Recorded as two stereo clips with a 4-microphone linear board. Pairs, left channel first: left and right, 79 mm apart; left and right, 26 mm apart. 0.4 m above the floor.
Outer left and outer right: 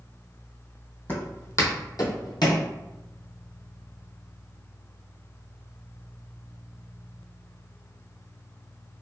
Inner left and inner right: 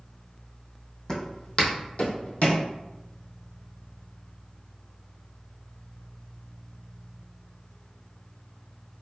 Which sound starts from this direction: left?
Footsteps, at 1.1 s.